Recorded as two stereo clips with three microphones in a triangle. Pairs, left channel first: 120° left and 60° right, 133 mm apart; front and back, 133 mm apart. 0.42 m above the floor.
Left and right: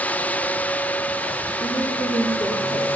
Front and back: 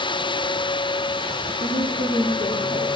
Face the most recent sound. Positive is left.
turn(degrees=0)